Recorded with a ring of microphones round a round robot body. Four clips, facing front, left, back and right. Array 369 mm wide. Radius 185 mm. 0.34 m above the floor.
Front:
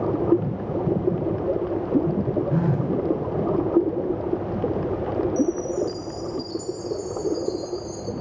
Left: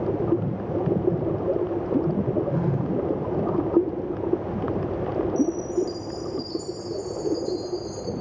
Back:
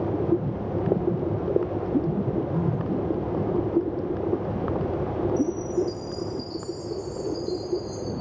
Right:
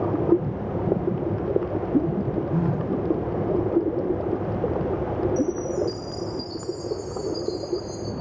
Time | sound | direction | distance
2.5 | a phone buzzing | straight ahead | 1.5 m
5.4 | a chime | 25° left | 5.5 m